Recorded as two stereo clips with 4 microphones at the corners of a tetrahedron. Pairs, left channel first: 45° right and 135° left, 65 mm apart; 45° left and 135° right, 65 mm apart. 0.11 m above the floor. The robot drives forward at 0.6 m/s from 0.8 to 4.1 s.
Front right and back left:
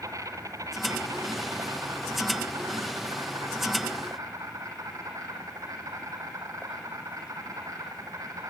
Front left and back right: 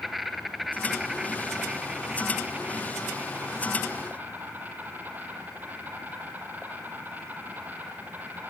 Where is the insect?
135° left, 1.7 m; by 8.5 s 160° left, 3.5 m.